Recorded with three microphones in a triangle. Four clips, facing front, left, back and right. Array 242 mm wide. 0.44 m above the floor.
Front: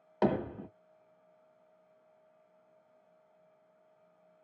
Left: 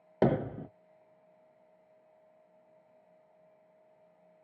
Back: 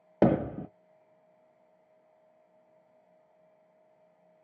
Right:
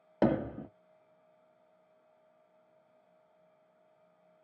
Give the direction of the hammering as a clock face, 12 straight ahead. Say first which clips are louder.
Left 1 dB, back 6 dB; 6 o'clock.